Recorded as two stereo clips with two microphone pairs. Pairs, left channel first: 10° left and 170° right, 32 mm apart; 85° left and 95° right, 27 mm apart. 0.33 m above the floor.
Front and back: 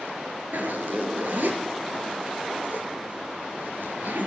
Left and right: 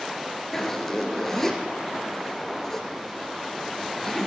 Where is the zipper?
165° left, 3 m.